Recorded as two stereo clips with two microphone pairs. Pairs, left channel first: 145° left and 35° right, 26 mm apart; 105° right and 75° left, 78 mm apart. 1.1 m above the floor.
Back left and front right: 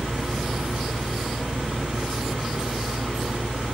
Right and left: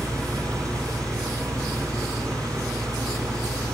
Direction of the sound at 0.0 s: 35° left.